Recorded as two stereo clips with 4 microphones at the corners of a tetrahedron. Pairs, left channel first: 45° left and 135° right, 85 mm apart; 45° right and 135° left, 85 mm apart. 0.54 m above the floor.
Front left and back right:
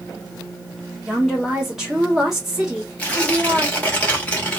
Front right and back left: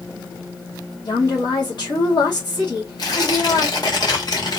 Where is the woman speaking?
50° right, 2 m.